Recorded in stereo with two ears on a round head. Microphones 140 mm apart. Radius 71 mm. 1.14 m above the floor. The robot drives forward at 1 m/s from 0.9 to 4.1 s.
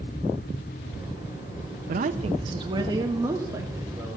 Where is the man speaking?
60° right (ahead or behind), 0.8 m; by 4.2 s 15° right (ahead or behind), 2.5 m.